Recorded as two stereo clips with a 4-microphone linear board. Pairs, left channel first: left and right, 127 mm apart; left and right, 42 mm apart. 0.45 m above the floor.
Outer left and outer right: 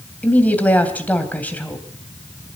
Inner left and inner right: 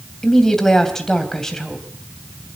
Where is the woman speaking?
10° left (ahead or behind), 3 m.